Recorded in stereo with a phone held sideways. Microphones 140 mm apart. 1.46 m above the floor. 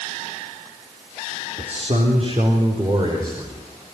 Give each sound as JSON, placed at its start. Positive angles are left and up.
{"t": 1.6, "sound": "a man speaking", "side_deg": -55, "distance_m": 3.0}